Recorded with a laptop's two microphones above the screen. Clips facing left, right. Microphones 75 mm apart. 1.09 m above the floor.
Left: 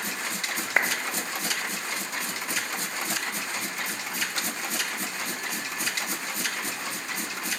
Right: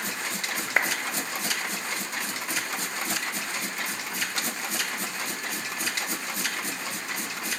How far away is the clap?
About 0.8 m.